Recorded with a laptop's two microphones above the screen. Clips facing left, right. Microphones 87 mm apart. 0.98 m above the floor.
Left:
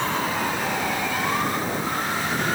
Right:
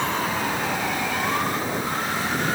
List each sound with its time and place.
Only background noise.